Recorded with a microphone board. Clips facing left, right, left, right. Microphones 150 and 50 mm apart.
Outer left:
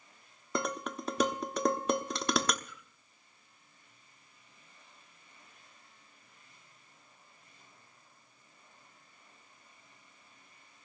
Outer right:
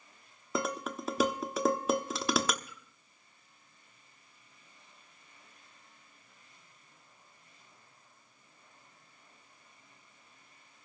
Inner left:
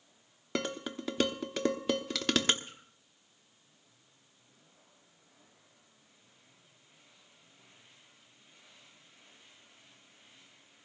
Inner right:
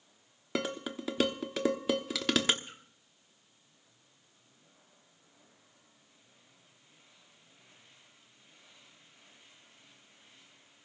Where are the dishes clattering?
5° right (ahead or behind), 1.0 m.